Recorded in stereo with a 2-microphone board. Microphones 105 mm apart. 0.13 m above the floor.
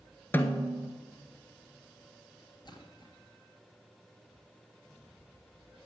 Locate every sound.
0.3 s a snare drum: 20° left (ahead or behind), 1.1 m
2.6 s a splash: 45° left (ahead or behind), 2.5 m